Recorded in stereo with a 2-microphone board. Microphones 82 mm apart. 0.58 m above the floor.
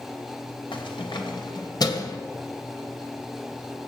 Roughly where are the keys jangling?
Left.